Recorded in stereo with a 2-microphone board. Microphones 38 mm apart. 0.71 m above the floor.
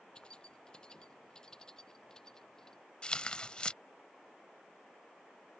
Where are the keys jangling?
25° left (ahead or behind); by 2.8 s 15° left (ahead or behind).